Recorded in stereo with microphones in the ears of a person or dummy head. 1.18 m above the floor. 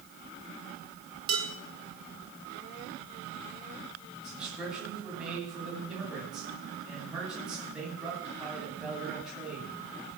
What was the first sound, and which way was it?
Dishes clattering, 35° right (ahead or behind).